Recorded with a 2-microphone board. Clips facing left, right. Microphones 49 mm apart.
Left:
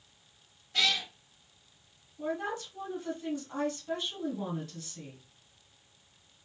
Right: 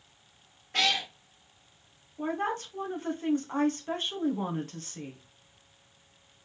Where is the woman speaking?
40° right (ahead or behind), 1.2 m.